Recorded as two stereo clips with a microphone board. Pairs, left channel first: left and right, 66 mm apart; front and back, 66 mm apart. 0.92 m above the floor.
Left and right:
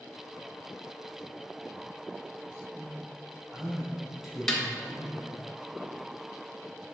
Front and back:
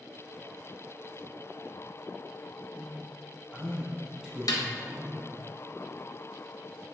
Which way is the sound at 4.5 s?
10° left.